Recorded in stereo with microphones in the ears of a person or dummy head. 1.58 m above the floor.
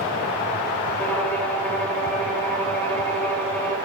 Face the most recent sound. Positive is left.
turn(degrees=5)  # may be behind; listen again after turning